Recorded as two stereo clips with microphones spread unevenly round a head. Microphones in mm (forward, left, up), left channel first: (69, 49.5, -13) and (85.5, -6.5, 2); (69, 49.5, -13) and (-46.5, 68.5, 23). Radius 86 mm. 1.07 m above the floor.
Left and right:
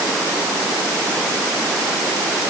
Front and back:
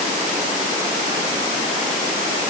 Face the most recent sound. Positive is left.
No sound to turn to.